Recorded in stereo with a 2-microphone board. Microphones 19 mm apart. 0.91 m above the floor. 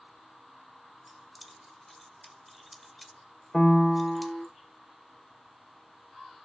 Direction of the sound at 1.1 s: 5° left (ahead or behind).